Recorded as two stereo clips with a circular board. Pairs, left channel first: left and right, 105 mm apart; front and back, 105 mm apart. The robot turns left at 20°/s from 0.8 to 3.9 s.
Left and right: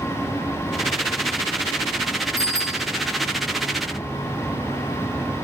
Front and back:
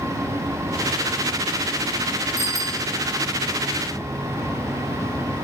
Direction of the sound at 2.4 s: 35° right.